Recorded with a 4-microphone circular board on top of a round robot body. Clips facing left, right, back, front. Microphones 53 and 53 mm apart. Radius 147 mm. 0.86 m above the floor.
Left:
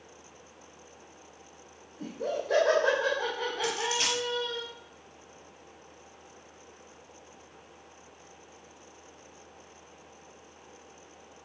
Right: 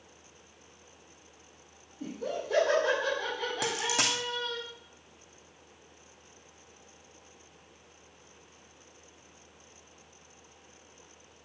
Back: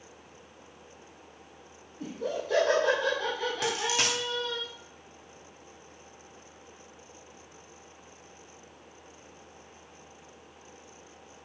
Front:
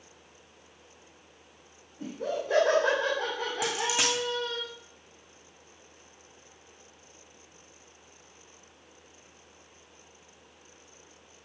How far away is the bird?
I don't hear a bird.